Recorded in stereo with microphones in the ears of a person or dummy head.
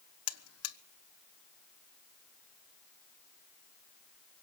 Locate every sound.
0.3 s a buzzer: 75° left (ahead or behind), 1.0 m